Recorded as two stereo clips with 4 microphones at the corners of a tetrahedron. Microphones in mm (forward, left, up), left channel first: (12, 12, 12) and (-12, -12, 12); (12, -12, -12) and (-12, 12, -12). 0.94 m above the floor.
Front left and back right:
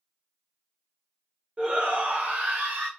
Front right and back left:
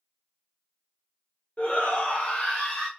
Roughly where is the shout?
Right.